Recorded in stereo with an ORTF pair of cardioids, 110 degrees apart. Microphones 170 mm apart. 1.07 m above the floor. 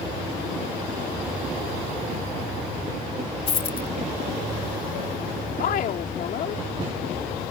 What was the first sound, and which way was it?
A dropped coin, 35° left.